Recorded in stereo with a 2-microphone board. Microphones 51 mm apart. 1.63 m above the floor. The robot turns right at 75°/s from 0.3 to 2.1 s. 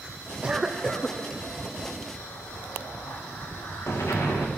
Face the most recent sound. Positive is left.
turn(degrees=65)  # may be behind; listen again after turning